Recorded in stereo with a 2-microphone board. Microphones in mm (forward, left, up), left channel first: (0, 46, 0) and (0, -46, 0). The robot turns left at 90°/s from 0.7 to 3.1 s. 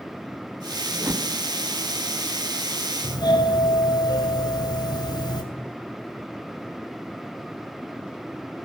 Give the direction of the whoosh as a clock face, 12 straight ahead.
1 o'clock.